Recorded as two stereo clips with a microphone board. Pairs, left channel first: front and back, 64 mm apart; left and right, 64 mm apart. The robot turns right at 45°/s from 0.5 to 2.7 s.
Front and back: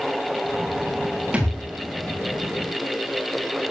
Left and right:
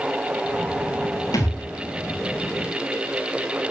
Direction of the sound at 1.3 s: 110° left.